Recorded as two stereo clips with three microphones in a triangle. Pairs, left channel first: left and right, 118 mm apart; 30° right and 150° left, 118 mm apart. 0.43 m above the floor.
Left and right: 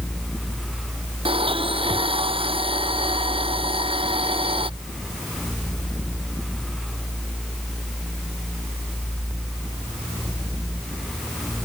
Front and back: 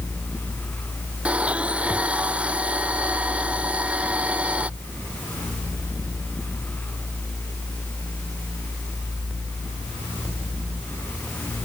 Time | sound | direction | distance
1.2 | a blender | 130° right | ?